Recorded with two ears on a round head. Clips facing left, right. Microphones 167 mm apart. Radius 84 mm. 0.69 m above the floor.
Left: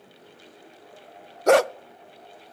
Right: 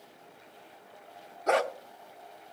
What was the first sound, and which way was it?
A dog barking, 55° left (ahead or behind).